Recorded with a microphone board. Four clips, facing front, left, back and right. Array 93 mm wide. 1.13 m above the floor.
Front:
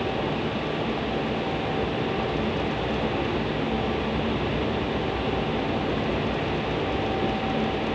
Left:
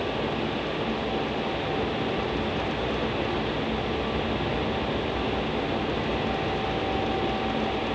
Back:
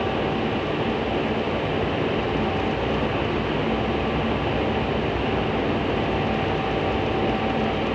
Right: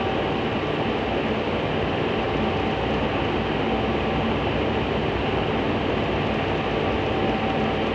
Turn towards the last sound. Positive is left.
No sound to turn to.